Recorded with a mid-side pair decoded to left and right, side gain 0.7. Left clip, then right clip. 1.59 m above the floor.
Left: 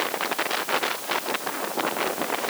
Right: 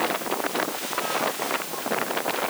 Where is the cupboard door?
No cupboard door in this recording.